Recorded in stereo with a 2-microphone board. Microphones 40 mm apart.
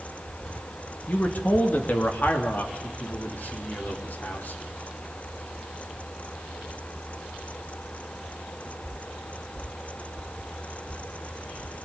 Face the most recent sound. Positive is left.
turn(degrees=55)  # may be behind; listen again after turning